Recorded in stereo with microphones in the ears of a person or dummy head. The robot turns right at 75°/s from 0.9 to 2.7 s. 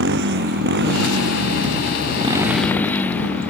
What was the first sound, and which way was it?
A motorcycle, 60° right (ahead or behind).